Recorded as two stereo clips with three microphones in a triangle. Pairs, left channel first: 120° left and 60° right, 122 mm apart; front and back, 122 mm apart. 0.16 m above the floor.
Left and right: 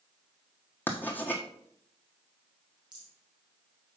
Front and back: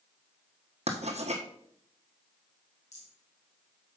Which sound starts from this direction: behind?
Writing, at 0.9 s.